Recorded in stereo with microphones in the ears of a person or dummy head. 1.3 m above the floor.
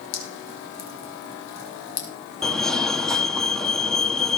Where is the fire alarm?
Centre (ahead or behind), 2.0 m.